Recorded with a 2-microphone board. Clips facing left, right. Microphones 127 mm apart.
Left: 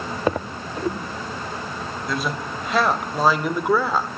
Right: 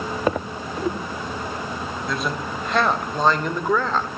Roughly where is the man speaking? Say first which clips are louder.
Left 1 dB; centre.